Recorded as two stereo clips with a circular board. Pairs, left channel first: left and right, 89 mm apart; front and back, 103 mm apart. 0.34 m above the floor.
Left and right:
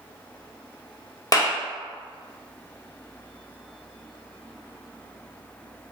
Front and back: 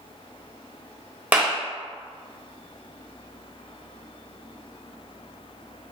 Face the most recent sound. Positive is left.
turn(degrees=110)